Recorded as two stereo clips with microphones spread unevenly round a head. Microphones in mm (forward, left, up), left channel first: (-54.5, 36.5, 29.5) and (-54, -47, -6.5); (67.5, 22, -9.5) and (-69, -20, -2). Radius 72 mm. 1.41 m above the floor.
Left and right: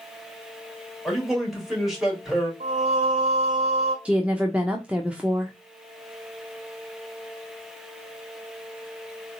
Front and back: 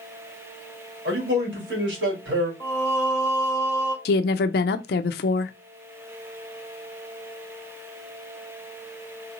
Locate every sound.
1.1 s a man speaking: 170° right, 3 m
2.6 s singing: 55° right, 1.3 m
4.0 s a woman speaking: 5° right, 0.5 m